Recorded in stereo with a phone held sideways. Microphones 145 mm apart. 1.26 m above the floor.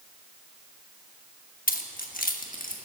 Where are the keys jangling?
75° left (ahead or behind), 1.1 m; by 2.8 s 70° left (ahead or behind), 1.7 m.